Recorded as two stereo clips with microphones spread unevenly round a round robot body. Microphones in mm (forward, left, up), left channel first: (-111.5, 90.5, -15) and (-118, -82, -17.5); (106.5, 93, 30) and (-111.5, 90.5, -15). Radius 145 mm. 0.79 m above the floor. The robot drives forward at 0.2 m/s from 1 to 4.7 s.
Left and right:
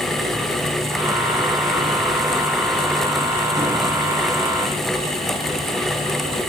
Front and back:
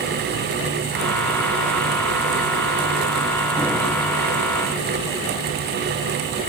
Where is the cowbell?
I don't hear a cowbell.